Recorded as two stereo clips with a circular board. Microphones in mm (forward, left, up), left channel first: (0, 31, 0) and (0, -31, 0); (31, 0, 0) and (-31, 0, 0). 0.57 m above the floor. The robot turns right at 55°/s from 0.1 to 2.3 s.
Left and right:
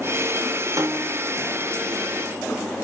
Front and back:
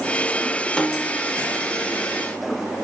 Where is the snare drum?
75° right, 1.4 m; by 1.3 s 50° right, 1.4 m.